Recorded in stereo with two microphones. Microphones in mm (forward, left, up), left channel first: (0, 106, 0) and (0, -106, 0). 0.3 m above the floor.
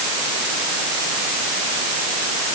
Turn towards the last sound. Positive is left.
No sound to turn to.